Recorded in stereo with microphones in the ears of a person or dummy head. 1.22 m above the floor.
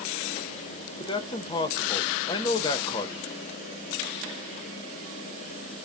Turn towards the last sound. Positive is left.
turn(degrees=25)  # may be behind; listen again after turning